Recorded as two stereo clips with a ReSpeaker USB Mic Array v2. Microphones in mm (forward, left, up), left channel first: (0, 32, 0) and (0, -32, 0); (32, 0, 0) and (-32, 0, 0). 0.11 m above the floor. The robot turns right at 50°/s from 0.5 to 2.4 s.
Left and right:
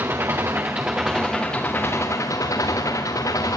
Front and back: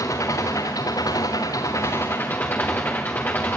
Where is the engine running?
35° right, 3 m; by 3.6 s 60° left, 3 m.